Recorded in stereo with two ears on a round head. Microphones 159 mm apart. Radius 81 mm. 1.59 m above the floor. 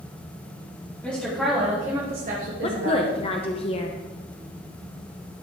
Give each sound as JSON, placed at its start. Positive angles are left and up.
{"t": 1.0, "sound": "a woman speaking", "side_deg": 10, "distance_m": 2.0}
{"t": 2.6, "sound": "a woman speaking", "side_deg": 35, "distance_m": 0.7}